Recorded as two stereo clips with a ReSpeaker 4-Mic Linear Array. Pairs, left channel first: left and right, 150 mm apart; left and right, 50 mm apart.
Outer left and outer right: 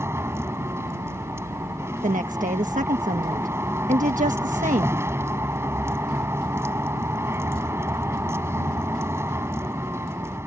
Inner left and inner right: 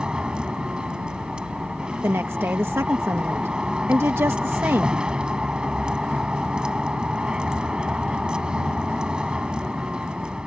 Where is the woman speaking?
60° right (ahead or behind).